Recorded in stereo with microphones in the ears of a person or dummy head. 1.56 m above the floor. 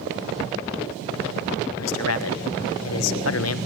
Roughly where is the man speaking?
Left.